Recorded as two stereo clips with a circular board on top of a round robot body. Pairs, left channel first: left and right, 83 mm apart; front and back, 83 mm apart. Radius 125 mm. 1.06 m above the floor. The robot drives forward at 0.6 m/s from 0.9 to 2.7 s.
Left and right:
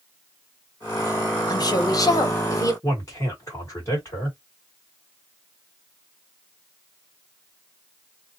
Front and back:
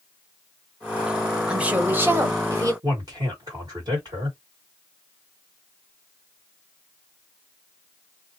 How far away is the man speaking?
About 1.5 m.